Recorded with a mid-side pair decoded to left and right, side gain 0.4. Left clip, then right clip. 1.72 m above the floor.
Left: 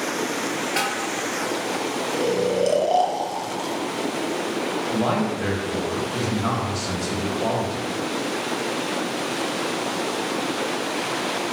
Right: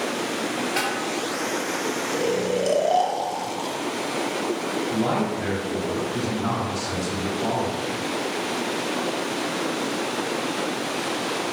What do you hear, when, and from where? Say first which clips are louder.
0.8 s a snare drum: left 1 dB; 30° left, 1.1 m
2.1 s snoring: left 2 dB; straight ahead, 0.5 m
4.9 s a man speaking: left 1 dB; 40° left, 1.2 m